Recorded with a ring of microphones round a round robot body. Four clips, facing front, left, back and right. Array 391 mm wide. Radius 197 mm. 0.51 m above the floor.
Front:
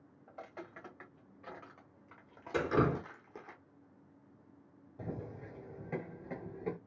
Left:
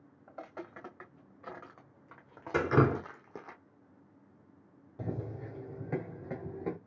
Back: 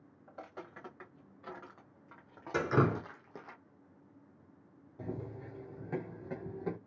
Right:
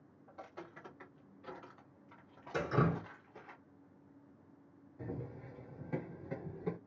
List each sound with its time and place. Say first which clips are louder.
0.3 s footsteps: left 6 dB, even; 100° left, 2.5 m; by 3.5 s 110° left, 1.0 m
2.5 s dripping: left 7 dB, back 1 dB; 105° left, 0.8 m
5.0 s running footsteps: left 6 dB, back 1 dB; 90° left, 1.2 m; by 6.8 s 105° left, 2.5 m